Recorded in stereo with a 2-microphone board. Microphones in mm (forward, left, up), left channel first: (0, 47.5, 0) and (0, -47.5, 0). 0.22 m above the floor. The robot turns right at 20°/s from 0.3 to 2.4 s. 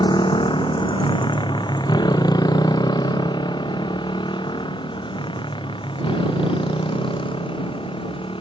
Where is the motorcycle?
50° left (ahead or behind); by 8.4 s 65° left (ahead or behind).